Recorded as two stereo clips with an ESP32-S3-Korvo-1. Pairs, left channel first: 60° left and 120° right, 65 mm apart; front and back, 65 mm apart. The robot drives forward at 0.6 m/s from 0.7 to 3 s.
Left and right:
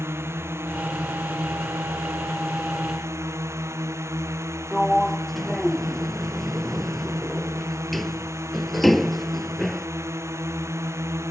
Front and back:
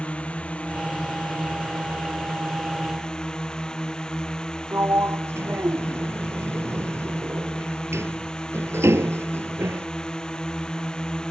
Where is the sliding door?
145° left.